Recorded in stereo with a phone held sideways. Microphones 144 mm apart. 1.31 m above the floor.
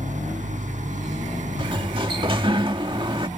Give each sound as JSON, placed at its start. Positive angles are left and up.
{"t": 0.0, "sound": "an engine running", "side_deg": -60}
{"t": 1.6, "sound": "a sliding door", "side_deg": -35}